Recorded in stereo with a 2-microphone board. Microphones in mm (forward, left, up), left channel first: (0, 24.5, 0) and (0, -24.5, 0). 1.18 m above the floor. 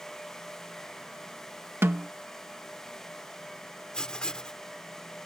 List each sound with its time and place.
1.8 s a snare drum: 60° right (ahead or behind)
3.9 s writing: 15° left (ahead or behind)